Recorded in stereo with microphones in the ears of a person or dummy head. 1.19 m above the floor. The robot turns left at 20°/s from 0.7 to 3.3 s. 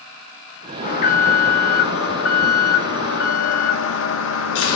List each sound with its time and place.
0.8 s an alarm: 130° left, 1.8 m; by 4.8 s 80° left, 1.8 m